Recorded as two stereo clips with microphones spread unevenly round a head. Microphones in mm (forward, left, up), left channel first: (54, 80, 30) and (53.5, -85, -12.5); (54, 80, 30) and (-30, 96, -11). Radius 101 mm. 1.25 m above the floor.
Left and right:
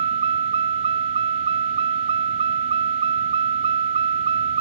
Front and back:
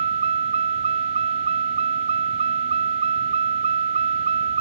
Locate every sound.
0.0 s a vehicle: 155° right